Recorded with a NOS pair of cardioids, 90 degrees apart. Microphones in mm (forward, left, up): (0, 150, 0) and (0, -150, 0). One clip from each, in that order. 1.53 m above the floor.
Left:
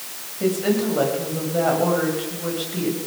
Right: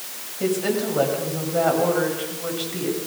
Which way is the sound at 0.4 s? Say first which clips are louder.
Left 1 dB; 5° right.